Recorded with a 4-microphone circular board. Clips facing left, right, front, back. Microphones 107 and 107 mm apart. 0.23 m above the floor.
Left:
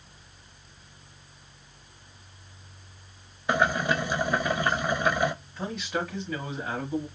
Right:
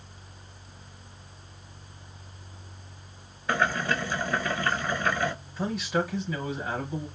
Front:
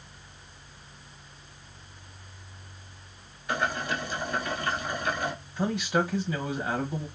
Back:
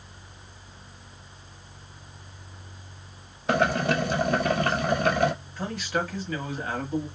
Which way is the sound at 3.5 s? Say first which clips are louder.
Left 2 dB, back 7 dB; 165° left.